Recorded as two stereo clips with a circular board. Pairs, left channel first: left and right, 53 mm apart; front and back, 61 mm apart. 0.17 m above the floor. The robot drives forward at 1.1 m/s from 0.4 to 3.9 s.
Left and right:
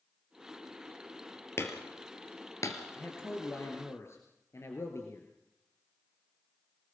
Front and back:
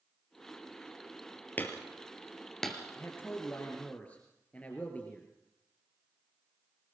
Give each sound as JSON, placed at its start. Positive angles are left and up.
{"t": 1.6, "sound": "hammering", "azimuth_deg": 60, "distance_m": 3.0}
{"t": 2.9, "sound": "a man speaking", "azimuth_deg": 50, "distance_m": 3.5}